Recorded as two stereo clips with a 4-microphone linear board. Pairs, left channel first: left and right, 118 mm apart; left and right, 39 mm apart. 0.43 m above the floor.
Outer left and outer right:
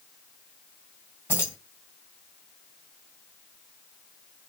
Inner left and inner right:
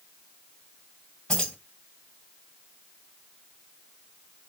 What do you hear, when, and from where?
1.3 s keys jangling: 20° left (ahead or behind), 1.8 m